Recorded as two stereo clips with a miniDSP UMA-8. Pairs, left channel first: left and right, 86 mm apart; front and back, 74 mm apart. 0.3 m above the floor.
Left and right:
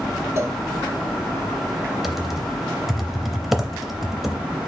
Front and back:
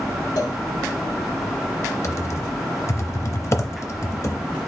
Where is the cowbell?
35° right, 0.5 m.